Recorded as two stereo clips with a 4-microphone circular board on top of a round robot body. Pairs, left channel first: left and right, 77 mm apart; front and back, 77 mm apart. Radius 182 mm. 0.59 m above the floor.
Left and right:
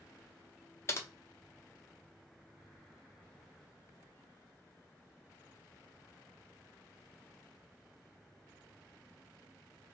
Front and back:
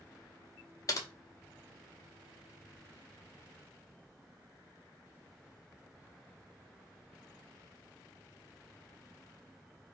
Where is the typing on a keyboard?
40° left, 0.8 m.